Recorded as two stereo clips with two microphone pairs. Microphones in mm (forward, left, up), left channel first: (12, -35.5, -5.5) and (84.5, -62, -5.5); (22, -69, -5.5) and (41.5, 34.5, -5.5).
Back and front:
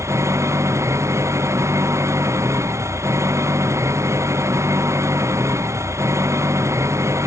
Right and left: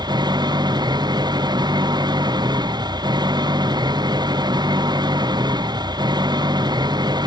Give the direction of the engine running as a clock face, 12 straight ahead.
11 o'clock.